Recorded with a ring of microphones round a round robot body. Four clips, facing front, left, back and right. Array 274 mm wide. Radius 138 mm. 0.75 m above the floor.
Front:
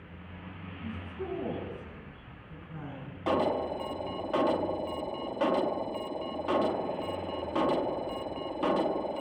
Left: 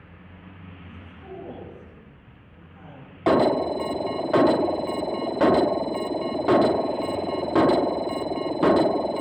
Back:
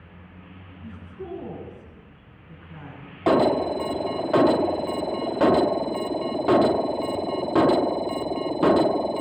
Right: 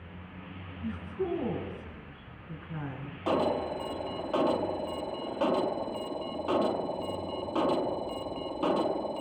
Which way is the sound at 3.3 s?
135° left.